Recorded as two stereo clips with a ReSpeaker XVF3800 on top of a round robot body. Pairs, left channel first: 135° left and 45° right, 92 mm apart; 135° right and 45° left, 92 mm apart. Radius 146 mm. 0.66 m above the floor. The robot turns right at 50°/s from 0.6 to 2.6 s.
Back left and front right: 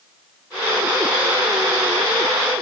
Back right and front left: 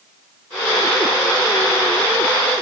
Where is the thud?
No thud in this recording.